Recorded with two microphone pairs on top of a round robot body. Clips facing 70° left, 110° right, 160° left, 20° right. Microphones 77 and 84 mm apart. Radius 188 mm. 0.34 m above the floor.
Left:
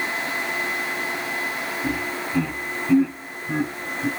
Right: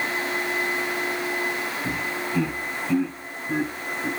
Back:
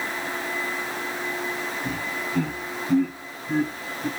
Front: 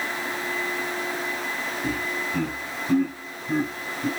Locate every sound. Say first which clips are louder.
1.8 s laughter: left 1 dB, front 2 dB; 10° left, 5 m; by 4.1 s 30° left, 5 m